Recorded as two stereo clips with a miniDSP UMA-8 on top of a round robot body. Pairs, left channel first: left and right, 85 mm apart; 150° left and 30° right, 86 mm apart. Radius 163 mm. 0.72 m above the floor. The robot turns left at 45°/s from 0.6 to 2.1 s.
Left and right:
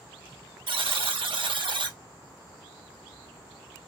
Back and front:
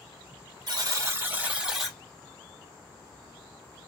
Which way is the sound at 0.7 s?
65° right.